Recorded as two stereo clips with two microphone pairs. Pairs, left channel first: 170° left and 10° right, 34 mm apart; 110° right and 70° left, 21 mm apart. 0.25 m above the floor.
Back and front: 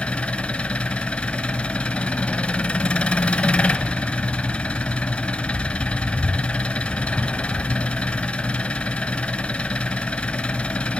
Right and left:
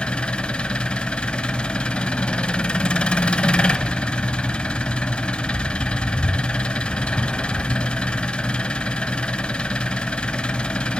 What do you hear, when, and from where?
0.0 s an engine running: 130° right, 0.9 m